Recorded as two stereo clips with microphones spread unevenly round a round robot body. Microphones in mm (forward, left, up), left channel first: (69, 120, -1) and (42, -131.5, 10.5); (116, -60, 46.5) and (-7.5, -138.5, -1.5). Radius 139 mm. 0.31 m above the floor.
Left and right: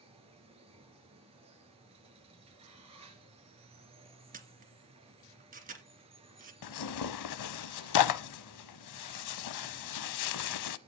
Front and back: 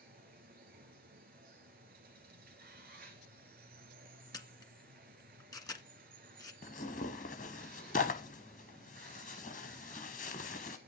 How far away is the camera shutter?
About 2.5 m.